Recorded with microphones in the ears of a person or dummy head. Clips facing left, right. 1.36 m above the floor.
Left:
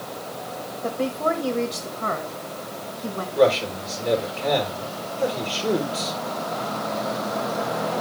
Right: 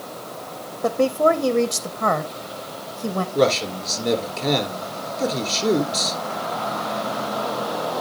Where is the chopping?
No chopping in this recording.